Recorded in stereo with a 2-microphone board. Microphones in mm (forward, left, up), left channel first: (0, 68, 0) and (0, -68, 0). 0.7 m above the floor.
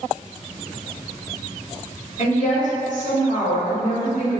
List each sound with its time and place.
2.2 s a woman speaking: 60° left (ahead or behind), 1.8 m